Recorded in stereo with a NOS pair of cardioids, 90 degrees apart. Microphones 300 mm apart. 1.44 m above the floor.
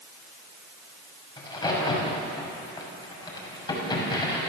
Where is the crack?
15° left, 6.5 m.